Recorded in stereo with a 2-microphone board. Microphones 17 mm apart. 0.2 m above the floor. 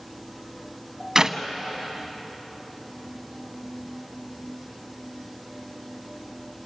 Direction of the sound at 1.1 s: 35° right (ahead or behind).